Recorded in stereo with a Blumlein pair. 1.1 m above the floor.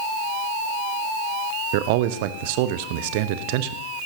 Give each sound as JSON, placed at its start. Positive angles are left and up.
{"t": 1.7, "sound": "a man speaking", "azimuth_deg": -50, "distance_m": 0.8}